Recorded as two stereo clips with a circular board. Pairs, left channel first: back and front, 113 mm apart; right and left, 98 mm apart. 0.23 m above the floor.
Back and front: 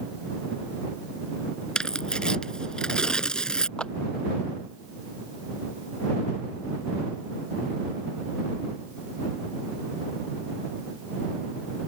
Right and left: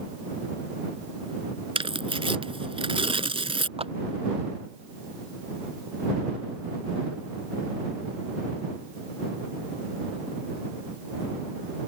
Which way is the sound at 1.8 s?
100° left.